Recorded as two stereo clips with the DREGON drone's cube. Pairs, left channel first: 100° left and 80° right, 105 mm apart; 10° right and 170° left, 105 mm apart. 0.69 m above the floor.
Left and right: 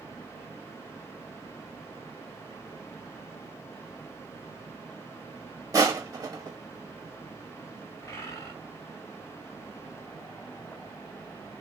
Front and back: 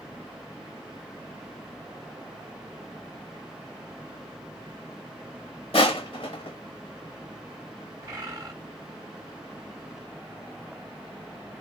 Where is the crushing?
25° right, 0.9 m.